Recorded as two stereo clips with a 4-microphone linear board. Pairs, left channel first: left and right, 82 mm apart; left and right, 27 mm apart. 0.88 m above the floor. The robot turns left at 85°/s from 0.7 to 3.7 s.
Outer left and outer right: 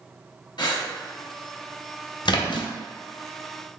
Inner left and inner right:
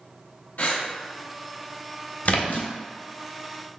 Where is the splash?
105° left, 0.5 m; by 2.7 s 70° left, 0.5 m.